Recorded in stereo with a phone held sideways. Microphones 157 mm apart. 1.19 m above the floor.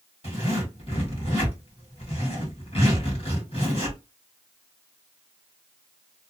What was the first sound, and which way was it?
A zipper, 40° left (ahead or behind).